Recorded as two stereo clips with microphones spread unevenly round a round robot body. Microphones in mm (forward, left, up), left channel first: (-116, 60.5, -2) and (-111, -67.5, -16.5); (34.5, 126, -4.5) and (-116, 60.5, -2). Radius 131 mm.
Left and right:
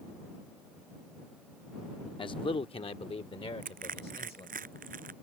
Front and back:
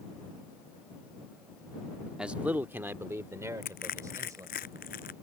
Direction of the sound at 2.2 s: 120° left.